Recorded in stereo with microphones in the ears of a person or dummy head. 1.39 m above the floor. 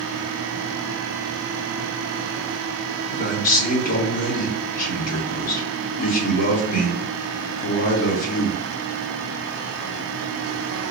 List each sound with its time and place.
3.1 s a man speaking: 45° left (ahead or behind), 1.8 m